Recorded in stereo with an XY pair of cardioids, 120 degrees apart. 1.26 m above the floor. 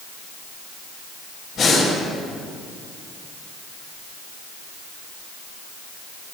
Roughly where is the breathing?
Ahead left.